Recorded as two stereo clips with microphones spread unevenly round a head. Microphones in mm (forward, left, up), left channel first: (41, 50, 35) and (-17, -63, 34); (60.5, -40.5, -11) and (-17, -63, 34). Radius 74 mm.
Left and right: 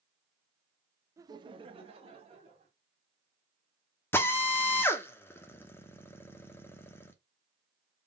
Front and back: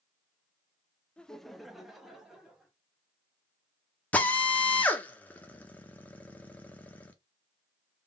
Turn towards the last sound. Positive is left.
turn(degrees=-5)